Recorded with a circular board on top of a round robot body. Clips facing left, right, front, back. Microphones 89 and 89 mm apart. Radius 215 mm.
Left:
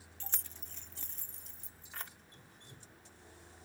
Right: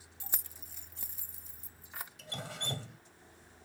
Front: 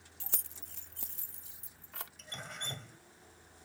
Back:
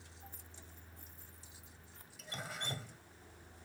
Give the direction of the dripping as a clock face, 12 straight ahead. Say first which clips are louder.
Right 16 dB, back 4 dB; 3 o'clock.